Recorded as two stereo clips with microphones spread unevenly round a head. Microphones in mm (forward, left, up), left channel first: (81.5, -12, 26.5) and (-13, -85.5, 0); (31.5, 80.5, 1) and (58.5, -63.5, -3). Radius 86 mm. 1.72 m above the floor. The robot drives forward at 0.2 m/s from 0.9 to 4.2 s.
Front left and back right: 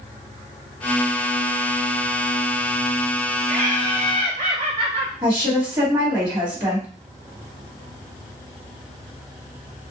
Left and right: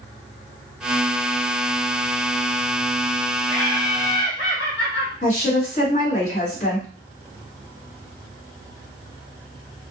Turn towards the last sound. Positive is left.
turn(degrees=155)